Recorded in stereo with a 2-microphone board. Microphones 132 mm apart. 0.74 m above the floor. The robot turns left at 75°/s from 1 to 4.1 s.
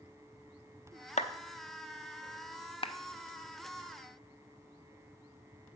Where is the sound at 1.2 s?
70° left (ahead or behind), 0.6 m.